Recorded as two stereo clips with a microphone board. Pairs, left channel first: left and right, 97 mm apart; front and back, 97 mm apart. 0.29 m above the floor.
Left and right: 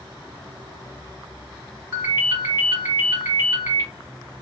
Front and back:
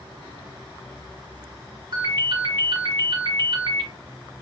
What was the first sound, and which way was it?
A ringtone, 150° right.